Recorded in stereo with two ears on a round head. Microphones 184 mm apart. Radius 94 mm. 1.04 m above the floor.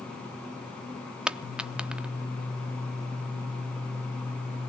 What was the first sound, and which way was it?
A dropped coin, 5° right (ahead or behind).